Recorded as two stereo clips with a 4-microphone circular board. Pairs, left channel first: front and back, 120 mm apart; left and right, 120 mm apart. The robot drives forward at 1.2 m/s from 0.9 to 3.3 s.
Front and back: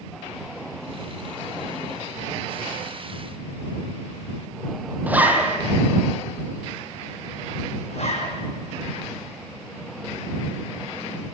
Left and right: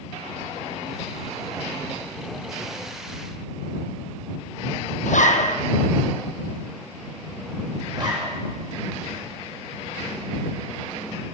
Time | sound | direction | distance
5.1 | a zipper | 100° left | 2 m
7.9 | a zipper | 30° right | 5 m